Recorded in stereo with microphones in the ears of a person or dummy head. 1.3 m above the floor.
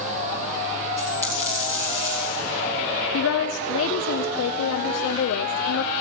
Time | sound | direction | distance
1.0 | a dropped coin | 10° right (ahead or behind) | 3.5 m
3.1 | a woman speaking | 70° left (ahead or behind) | 0.8 m